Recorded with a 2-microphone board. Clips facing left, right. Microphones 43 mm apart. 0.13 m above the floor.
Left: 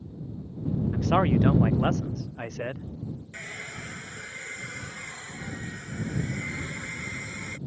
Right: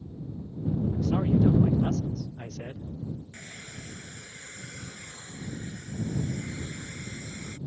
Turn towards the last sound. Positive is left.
turn(degrees=50)  # may be behind; listen again after turning